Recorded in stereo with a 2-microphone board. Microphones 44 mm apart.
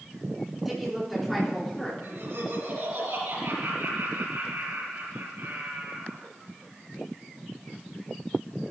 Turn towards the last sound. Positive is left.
turn(degrees=-80)